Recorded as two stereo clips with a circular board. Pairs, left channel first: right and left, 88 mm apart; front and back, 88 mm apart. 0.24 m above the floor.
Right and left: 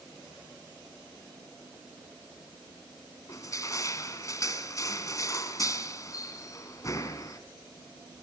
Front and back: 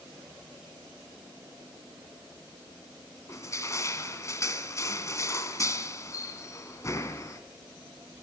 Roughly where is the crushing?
Ahead right.